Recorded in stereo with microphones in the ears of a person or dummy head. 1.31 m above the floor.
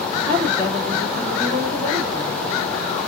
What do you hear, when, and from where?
0.3 s a woman speaking: 45° right (ahead or behind), 2 m